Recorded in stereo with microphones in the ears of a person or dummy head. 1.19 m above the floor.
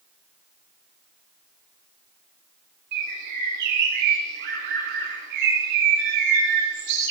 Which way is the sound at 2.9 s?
65° right (ahead or behind).